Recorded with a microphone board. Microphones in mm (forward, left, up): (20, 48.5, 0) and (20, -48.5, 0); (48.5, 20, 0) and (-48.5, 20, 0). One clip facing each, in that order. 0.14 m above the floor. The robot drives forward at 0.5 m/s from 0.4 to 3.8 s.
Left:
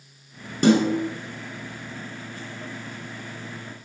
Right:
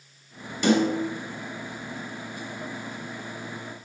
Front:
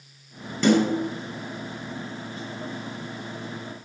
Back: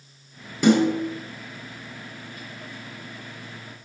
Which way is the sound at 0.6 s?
105° left.